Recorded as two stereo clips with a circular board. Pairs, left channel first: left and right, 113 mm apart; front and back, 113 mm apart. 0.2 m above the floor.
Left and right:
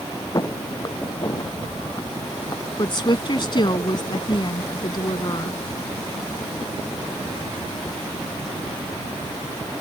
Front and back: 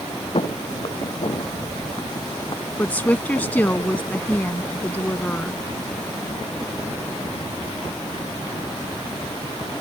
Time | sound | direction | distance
0.3 | footsteps | 35° left | ?
2.8 | a woman speaking | 70° left | ?